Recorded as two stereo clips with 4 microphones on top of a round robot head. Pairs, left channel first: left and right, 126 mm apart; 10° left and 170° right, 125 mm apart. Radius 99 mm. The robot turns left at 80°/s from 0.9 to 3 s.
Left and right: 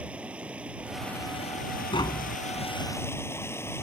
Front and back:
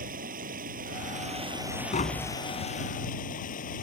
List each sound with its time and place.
0.0 s running water: 175° right; by 3.8 s 20° left
1.9 s tapping: 40° left; by 2.4 s 5° left